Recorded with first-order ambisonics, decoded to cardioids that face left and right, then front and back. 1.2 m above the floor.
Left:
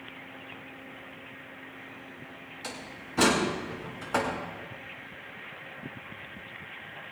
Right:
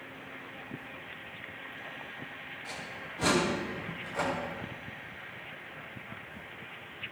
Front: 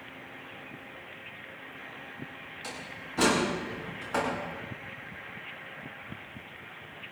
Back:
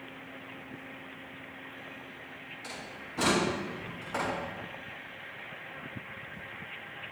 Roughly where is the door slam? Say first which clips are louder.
Left 2 dB, front 3 dB; left.